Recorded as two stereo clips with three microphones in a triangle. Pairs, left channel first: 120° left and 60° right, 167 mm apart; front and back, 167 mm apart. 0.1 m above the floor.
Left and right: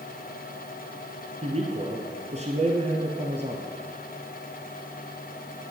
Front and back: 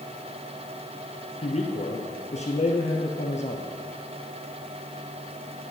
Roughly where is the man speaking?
Ahead right.